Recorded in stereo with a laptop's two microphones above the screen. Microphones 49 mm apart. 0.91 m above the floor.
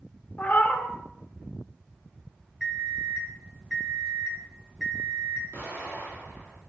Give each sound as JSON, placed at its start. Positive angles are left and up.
{"t": 0.4, "sound": "a cat meowing", "side_deg": 40, "distance_m": 0.6}
{"t": 2.6, "sound": "an alarm clock", "side_deg": -10, "distance_m": 0.7}
{"t": 5.5, "sound": "an explosion", "side_deg": -75, "distance_m": 1.7}